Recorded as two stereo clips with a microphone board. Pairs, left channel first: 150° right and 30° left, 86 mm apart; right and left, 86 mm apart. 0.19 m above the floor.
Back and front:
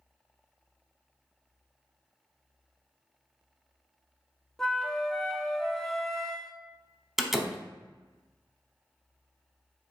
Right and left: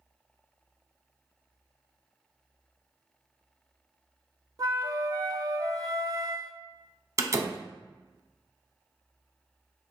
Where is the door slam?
115° left, 0.8 m.